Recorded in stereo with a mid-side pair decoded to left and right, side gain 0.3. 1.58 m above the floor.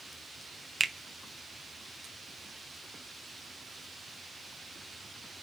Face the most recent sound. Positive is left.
turn(degrees=-30)